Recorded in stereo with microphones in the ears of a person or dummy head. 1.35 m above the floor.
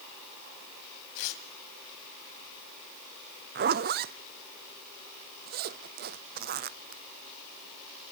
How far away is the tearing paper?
About 3 m.